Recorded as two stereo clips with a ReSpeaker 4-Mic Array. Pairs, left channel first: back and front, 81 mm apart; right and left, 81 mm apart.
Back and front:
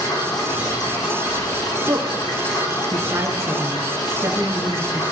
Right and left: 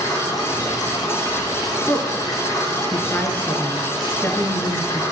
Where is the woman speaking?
30° right, 1.3 m.